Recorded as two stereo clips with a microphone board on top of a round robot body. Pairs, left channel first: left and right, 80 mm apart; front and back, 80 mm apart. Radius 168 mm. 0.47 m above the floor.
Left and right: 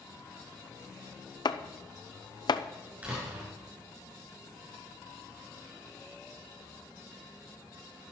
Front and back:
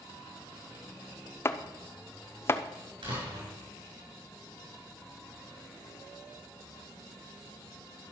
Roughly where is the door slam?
Behind.